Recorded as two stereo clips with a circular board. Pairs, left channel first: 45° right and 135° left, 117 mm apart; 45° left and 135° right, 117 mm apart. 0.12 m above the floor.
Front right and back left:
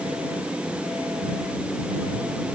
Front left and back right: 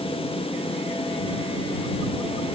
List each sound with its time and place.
Only background noise.